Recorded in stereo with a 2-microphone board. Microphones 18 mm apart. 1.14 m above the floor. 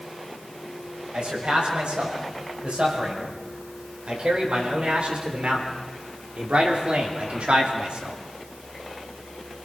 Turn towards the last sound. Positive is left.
turn(degrees=-70)  # may be behind; listen again after turning